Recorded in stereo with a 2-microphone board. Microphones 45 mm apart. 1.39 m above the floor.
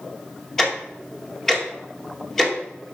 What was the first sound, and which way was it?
Ticking, 5° left (ahead or behind).